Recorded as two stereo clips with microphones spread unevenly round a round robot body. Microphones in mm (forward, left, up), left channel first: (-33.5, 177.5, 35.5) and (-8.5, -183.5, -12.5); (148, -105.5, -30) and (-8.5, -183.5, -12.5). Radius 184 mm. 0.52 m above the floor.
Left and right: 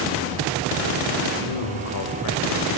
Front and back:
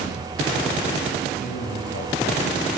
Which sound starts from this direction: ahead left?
A man speaking, at 1.4 s.